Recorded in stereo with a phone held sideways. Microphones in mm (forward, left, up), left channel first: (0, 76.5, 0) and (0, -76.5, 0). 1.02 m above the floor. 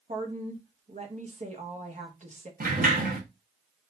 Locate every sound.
0.1 s a woman speaking: 50° right (ahead or behind), 1.2 m
2.6 s a sliding door: 70° right (ahead or behind), 1.0 m